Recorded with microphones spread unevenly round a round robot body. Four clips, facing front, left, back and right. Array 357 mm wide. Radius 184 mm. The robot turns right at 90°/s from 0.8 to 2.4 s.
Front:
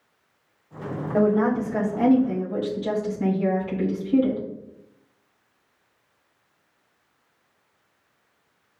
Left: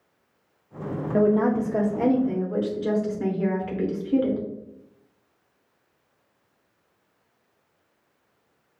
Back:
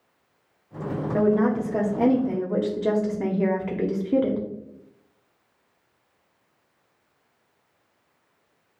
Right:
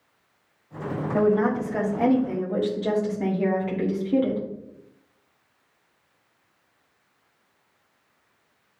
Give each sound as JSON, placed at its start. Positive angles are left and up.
{"t": 1.1, "sound": "a woman speaking", "azimuth_deg": 65, "distance_m": 1.3}